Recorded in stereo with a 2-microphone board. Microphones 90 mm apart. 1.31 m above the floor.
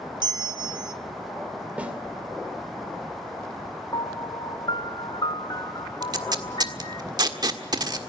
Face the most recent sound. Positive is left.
turn(degrees=-50)  # may be behind; listen again after turning